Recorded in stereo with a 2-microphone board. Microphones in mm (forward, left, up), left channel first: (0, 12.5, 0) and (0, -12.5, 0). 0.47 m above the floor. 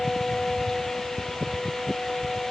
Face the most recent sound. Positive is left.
No sound to turn to.